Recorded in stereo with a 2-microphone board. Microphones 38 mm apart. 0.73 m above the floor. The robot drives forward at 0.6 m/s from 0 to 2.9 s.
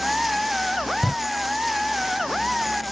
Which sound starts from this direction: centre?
A door slam, at 1.0 s.